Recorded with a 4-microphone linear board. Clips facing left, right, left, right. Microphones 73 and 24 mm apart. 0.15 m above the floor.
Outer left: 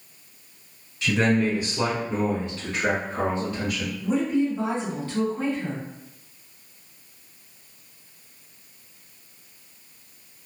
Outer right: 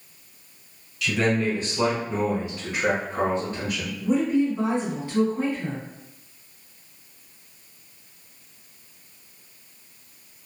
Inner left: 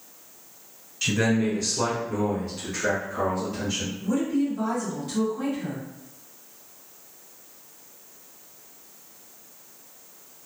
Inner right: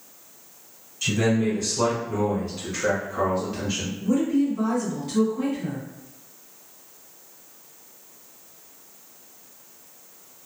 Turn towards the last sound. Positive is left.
turn(degrees=-20)  # may be behind; listen again after turning